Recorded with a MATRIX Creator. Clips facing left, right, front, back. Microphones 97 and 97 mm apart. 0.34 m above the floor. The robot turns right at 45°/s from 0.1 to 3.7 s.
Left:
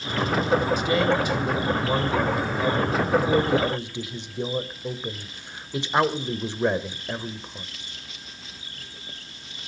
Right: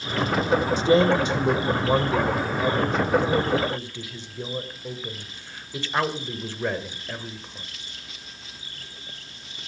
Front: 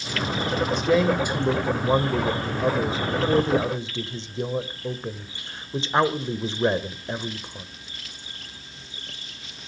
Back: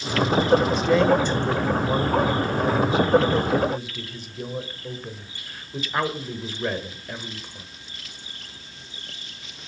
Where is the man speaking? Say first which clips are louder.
Right 3 dB, back 2 dB; 95° right, 1.4 m; by 7.7 s 40° left, 1.4 m.